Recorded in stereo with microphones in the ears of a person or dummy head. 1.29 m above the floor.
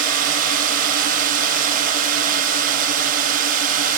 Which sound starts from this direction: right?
A drone, at 0.0 s.